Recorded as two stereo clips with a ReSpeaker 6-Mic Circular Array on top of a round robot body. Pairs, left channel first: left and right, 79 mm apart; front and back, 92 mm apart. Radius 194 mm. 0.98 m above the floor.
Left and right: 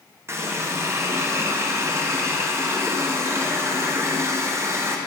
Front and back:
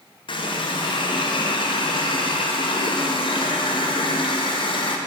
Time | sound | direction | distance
0.3 | a running tap | 30° right | 1.1 m